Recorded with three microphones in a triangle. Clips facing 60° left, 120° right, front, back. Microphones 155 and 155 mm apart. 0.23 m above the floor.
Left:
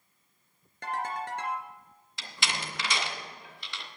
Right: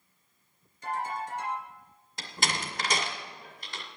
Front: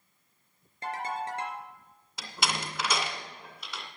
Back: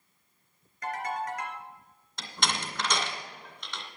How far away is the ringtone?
About 3 m.